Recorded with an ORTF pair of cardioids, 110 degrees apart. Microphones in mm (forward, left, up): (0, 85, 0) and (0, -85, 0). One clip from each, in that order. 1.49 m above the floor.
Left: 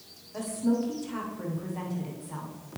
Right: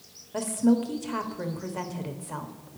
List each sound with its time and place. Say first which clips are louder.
0.3 s a woman speaking: right 4 dB; 40° right, 0.9 m